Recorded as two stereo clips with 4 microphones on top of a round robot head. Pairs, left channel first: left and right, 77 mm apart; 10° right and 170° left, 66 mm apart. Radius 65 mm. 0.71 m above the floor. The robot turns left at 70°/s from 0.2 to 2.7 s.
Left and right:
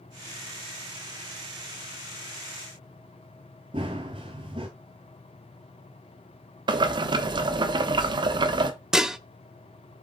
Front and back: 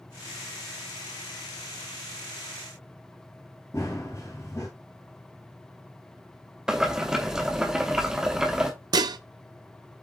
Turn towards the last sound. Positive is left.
turn(degrees=-175)